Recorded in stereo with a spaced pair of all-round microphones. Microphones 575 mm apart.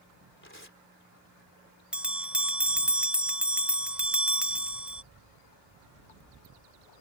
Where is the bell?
Centre (ahead or behind).